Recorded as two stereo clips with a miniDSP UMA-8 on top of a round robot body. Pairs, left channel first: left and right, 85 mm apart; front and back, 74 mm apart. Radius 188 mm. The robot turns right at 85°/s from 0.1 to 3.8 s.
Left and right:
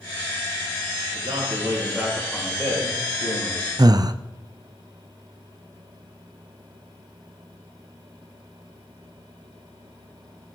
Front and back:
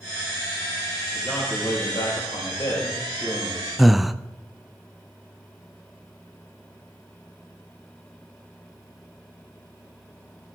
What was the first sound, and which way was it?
A man speaking, 95° right.